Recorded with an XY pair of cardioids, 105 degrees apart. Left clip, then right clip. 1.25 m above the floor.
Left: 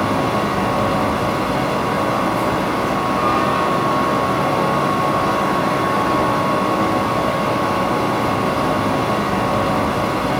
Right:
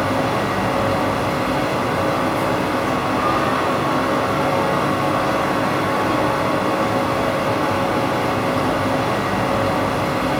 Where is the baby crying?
No baby crying in this recording.